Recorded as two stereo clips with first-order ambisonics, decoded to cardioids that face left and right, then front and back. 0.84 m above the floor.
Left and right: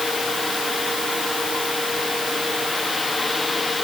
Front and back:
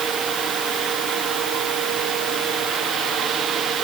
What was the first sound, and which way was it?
Only background noise.